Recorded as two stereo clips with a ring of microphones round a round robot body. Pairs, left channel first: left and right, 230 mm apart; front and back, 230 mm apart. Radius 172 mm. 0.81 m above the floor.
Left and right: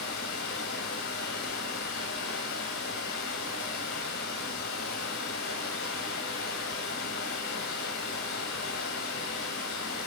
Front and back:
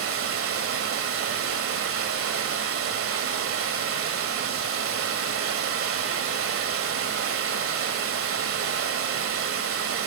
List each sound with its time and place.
0.0 s running water: 150° left, 1.6 m